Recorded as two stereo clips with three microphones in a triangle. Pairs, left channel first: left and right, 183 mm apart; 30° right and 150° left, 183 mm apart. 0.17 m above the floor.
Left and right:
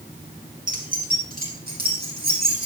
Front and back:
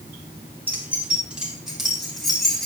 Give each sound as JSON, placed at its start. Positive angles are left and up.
{"t": 0.7, "sound": "keys jangling", "azimuth_deg": -130, "distance_m": 3.0}